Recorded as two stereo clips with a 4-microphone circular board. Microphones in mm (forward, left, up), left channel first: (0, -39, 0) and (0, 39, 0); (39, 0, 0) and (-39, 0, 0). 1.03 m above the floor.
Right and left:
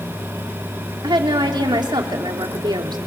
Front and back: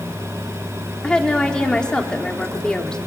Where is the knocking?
I don't hear knocking.